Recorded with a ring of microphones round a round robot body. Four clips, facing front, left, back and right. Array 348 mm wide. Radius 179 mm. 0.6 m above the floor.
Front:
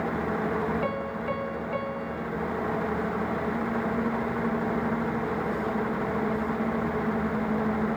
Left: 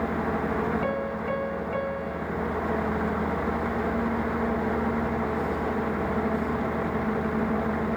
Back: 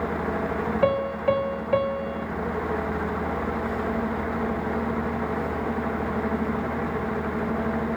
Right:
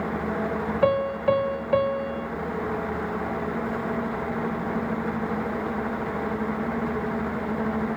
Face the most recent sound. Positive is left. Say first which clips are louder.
# right 7 dB, back 7 dB
turn(degrees=-130)